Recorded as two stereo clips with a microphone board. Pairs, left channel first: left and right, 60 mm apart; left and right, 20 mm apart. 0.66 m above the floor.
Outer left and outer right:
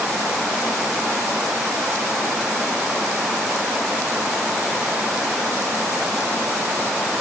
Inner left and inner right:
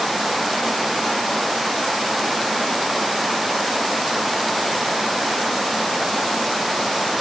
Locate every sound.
Only background noise.